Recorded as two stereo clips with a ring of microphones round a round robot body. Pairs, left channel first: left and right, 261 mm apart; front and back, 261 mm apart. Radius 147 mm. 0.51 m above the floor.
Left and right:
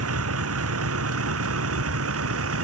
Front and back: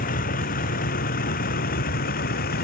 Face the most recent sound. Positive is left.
turn(degrees=-60)